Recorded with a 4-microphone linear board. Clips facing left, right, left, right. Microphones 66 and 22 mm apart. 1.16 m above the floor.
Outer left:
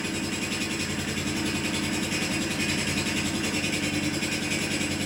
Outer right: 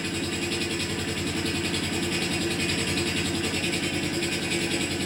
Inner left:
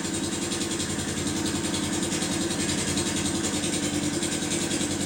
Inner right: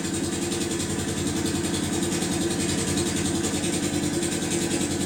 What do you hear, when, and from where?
0.0 s an engine running: 10° left (ahead or behind), 1.2 m